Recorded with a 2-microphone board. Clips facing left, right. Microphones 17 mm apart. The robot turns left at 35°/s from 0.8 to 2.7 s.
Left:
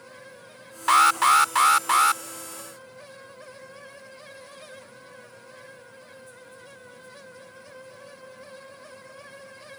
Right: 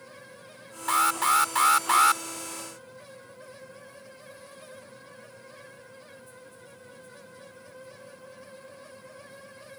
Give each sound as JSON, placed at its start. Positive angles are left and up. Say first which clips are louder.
{"t": 0.9, "sound": "an alarm", "louder": "left 6 dB", "azimuth_deg": 35}